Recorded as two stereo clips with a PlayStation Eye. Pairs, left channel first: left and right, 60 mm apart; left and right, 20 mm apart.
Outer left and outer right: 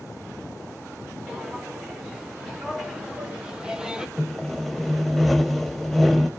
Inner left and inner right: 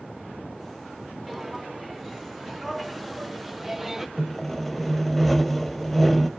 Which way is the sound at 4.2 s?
Centre (ahead or behind).